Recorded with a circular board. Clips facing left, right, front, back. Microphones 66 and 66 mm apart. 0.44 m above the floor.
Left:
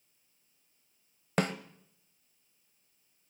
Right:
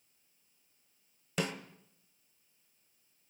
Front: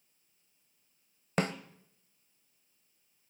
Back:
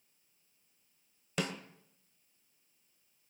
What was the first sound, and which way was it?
A snare drum, 50° left.